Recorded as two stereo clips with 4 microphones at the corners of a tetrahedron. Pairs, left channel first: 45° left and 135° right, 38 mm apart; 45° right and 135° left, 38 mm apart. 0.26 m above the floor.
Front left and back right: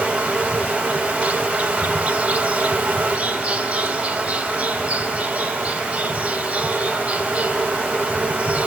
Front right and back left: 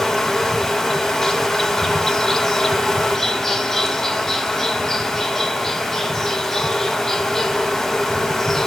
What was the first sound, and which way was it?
An insect, 120° right.